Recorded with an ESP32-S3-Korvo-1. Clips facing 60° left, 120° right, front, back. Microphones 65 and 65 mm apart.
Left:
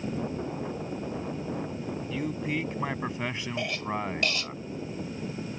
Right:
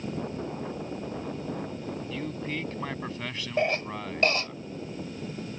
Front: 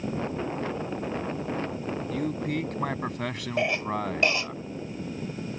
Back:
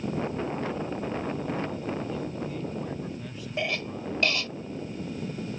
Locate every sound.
2.1 s a man speaking: 20° right; by 4.6 s 5° left
3.6 s a cough: 70° right